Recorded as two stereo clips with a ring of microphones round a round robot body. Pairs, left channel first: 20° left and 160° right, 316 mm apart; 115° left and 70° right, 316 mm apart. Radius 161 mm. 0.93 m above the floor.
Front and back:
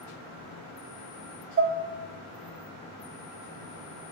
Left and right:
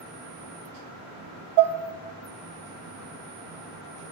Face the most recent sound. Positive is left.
turn(degrees=-100)